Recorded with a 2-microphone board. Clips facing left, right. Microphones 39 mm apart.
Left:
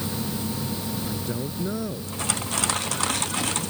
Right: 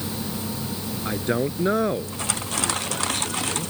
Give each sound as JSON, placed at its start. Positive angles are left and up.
{"t": 1.1, "sound": "a man speaking", "side_deg": -50}